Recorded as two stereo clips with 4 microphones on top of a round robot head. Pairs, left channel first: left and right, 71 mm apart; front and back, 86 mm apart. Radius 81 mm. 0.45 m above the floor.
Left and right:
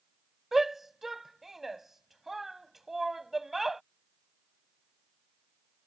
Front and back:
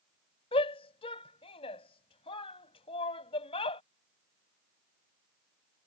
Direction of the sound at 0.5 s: 5° right.